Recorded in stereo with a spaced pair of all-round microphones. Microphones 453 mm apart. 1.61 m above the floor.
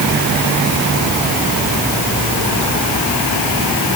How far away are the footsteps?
No footsteps in this recording.